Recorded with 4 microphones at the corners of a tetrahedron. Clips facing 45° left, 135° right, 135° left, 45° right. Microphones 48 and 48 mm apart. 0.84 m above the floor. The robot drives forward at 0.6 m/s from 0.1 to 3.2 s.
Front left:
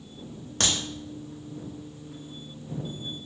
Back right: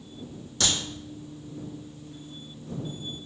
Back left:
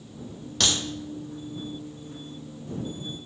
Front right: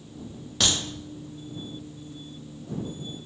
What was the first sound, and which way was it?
A crack, 35° left.